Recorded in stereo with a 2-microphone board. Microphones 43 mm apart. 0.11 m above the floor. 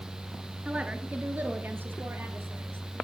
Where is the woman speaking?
25° right (ahead or behind), 1.8 m; by 3.0 s 60° right (ahead or behind), 2.5 m.